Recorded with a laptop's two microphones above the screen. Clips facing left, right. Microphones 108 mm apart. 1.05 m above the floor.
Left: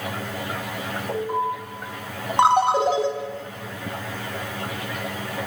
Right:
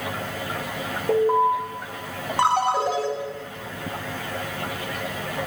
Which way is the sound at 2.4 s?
20° left (ahead or behind).